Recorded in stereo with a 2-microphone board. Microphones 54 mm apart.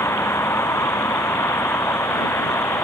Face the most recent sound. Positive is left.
turn(degrees=55)  # may be behind; listen again after turning